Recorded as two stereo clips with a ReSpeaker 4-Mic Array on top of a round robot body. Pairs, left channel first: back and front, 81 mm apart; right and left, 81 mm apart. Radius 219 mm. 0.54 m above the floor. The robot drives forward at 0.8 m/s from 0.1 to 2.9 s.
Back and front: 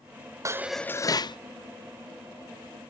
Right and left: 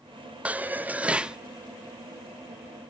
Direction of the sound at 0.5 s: 25° left.